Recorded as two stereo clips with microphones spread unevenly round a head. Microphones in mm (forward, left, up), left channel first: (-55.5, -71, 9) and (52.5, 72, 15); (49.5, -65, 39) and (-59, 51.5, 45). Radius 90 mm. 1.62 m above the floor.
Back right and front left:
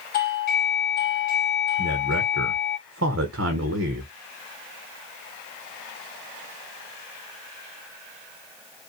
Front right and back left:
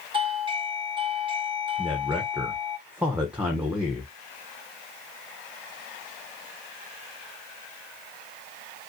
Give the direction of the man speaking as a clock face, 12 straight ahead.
10 o'clock.